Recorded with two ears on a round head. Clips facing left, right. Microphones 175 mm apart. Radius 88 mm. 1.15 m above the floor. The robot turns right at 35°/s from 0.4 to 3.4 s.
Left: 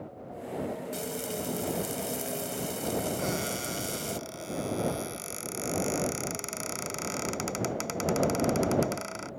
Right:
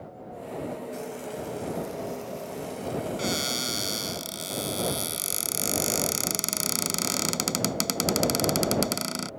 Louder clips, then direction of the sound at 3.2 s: Right 2 dB; 40° right (ahead or behind).